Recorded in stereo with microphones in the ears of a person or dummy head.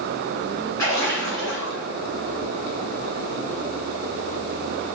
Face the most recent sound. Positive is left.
turn(degrees=20)  # may be behind; listen again after turning